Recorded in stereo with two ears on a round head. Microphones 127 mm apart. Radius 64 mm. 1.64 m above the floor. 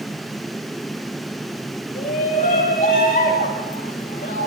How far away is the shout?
About 8.5 m.